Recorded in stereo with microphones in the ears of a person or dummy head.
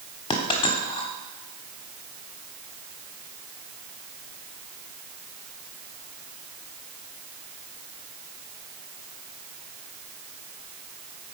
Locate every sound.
0.3 s a dropped coin: 25° left (ahead or behind), 1.0 m